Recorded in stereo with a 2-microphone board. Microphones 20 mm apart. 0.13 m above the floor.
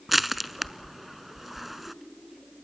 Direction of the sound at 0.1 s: 5° right (ahead or behind).